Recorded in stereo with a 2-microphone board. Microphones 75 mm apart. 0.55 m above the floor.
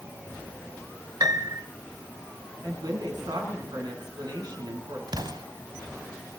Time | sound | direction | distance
1.2 | a piano | 60° right (ahead or behind) | 0.9 m
2.6 | a woman speaking | 70° right (ahead or behind) | 5.5 m
5.1 | an explosion | 70° right (ahead or behind) | 1.1 m